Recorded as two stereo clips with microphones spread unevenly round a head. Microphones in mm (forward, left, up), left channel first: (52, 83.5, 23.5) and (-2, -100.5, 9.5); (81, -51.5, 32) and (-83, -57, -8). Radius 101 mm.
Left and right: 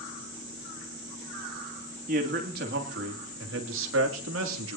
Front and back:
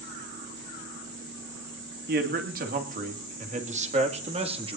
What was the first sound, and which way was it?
A man speaking, 155° right.